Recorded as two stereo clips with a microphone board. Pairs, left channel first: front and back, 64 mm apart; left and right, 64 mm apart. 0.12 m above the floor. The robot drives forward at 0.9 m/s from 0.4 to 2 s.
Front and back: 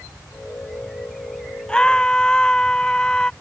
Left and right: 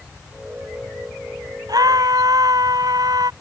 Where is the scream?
75° right; by 3.3 s 80° right.